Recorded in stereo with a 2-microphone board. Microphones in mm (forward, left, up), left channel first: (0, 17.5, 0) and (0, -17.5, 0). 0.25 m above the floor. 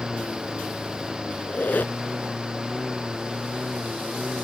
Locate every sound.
0.0 s a lawn mower: 10° right (ahead or behind)
1.4 s a squeak: 60° left (ahead or behind)